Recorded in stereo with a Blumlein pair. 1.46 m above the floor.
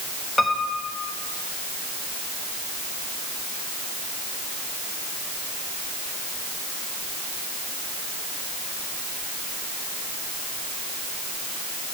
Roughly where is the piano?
Ahead.